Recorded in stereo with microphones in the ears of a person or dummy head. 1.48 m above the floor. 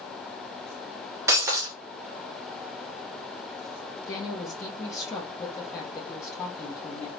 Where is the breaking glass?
15° right (ahead or behind), 0.8 m.